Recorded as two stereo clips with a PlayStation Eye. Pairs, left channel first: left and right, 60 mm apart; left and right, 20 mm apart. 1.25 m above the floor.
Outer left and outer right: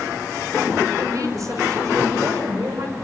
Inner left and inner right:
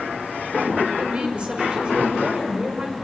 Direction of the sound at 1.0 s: 65° right (ahead or behind).